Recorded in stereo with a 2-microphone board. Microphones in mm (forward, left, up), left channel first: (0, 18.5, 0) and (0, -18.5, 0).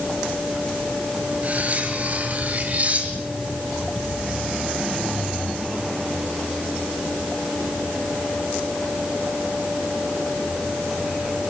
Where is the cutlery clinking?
40° right (ahead or behind), 4.5 m.